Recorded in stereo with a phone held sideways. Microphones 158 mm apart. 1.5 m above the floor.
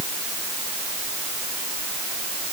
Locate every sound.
Only background noise.